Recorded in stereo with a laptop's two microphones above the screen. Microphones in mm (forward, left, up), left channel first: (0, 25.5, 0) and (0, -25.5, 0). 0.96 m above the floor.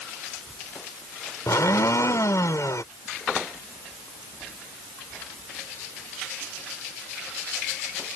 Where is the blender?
75° left (ahead or behind).